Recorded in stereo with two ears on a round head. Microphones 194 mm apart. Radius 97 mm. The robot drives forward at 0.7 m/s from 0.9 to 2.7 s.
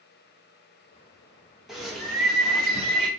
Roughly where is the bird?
Centre.